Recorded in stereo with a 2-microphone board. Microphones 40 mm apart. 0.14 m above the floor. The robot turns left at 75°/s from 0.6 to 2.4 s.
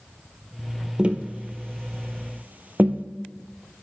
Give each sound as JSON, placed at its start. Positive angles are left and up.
{"t": 1.0, "sound": "tapping", "side_deg": -25, "distance_m": 0.8}